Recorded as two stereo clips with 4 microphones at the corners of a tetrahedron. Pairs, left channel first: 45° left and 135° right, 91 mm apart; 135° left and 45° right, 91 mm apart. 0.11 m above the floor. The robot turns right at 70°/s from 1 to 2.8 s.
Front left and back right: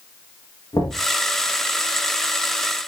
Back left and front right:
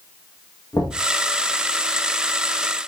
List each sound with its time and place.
0.7 s knocking: 90° left, 8.5 m